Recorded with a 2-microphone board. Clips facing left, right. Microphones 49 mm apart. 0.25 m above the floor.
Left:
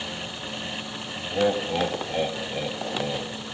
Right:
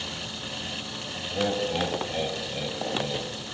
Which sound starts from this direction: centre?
Laughter, at 1.3 s.